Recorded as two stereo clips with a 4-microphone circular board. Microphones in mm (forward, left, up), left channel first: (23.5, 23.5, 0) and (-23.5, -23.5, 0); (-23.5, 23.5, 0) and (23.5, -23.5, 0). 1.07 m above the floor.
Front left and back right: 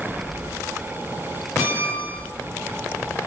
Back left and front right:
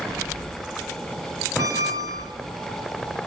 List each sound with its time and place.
1.6 s a squeak: 75° right, 3 m